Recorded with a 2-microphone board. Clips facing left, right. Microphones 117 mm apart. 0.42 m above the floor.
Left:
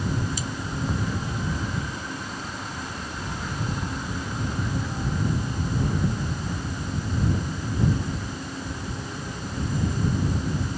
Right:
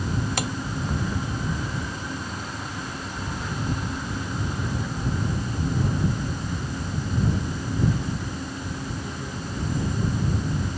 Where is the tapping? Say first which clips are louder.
Right 5 dB; 75° right (ahead or behind).